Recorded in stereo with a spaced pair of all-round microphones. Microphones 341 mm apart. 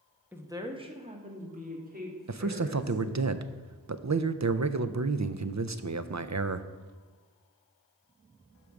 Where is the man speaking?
55° right (ahead or behind), 0.5 m.